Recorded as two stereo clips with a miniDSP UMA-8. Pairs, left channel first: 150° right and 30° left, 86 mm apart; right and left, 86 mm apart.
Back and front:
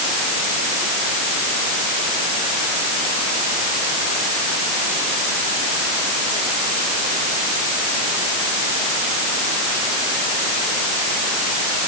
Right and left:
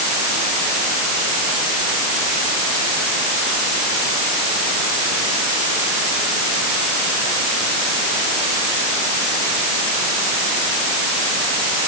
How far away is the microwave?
I don't hear a microwave.